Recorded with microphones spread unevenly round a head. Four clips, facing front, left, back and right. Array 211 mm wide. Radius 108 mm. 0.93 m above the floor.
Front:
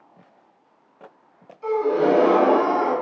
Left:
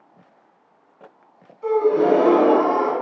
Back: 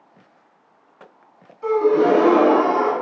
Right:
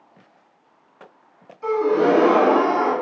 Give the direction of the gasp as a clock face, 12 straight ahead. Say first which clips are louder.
Left 1 dB, back 4 dB; 5 o'clock.